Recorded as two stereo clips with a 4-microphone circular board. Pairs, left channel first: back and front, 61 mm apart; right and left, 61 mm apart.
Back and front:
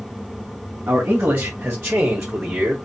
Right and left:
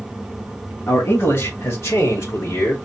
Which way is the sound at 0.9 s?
55° right.